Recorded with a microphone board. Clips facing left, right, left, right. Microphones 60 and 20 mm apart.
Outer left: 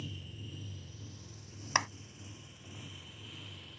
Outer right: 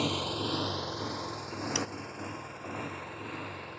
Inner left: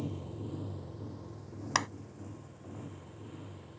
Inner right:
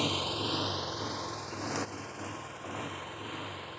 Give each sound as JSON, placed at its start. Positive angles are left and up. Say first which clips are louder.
{"t": 0.0, "sound": "a motorcycle", "louder": "outer right 16 dB, inner right 10 dB", "side_deg": -80}
{"t": 1.8, "sound": "a clap", "louder": "outer left 5 dB, inner left 7 dB", "side_deg": 55}